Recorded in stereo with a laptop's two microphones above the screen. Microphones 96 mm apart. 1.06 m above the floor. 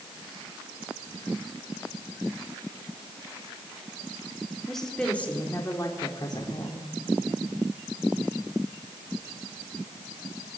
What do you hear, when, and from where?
4.7 s a woman speaking: centre (ahead or behind), 3.5 m; by 6.9 s 55° left (ahead or behind), 4 m